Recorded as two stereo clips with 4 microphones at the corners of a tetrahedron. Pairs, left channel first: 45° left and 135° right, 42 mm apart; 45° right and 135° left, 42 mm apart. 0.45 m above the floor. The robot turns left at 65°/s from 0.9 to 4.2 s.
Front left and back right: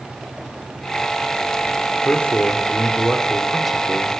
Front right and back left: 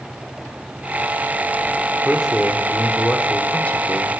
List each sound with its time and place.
2.0 s a man speaking: 55° left, 1.0 m; by 4.2 s 85° right, 1.0 m